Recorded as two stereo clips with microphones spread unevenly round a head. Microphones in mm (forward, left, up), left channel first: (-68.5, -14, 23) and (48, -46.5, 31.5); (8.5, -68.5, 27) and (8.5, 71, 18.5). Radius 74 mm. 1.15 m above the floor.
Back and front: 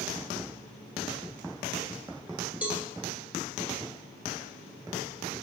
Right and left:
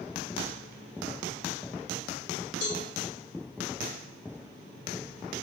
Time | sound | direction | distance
2.6 | a cowbell | 95° right | 1.9 m